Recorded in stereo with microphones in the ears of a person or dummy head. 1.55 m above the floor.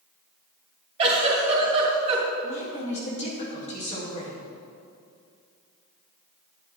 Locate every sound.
1.0 s a giggle: 30° right (ahead or behind), 2.5 m
2.4 s a woman speaking: 35° left (ahead or behind), 2.5 m